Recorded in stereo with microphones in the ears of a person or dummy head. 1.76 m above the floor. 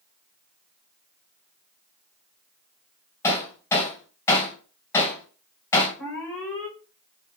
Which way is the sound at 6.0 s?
15° left (ahead or behind).